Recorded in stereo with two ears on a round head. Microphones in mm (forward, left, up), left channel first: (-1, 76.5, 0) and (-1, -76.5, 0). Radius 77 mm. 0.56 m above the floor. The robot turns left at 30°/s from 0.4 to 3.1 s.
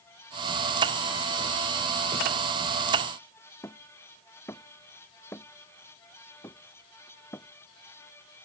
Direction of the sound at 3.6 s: 15° left (ahead or behind).